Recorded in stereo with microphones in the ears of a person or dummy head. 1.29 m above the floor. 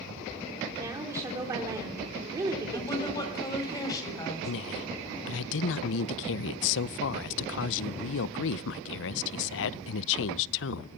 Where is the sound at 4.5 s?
70° left (ahead or behind), 0.7 m.